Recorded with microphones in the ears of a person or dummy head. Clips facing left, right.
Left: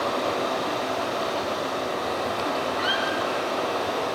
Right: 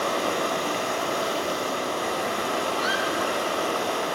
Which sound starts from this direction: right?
Running water, at 0.0 s.